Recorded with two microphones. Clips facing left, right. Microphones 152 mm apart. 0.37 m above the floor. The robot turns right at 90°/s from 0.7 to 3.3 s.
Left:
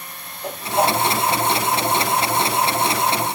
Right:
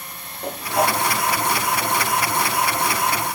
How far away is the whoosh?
About 3 m.